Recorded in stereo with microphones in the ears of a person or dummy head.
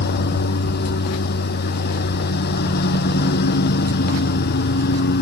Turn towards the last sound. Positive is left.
turn(degrees=55)  # may be behind; listen again after turning